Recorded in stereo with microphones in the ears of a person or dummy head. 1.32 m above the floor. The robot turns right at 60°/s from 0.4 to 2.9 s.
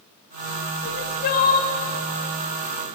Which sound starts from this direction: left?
Crying, at 0.8 s.